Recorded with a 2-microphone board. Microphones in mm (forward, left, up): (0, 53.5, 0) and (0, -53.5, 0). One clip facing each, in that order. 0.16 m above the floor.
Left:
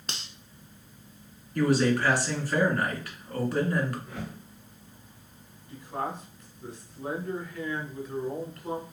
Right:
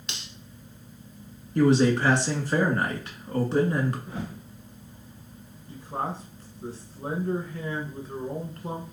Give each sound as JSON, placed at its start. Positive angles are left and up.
{"t": 0.1, "sound": "cutlery clinking", "side_deg": 40, "distance_m": 0.8}
{"t": 1.6, "sound": "a man speaking", "side_deg": -25, "distance_m": 1.8}
{"t": 4.1, "sound": "a whoosh", "side_deg": -30, "distance_m": 2.5}
{"t": 5.7, "sound": "a man speaking", "side_deg": -35, "distance_m": 1.6}